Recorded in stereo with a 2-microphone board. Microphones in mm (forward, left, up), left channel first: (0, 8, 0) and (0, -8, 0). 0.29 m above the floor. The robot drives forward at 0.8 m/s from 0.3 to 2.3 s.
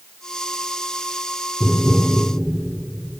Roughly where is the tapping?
Centre.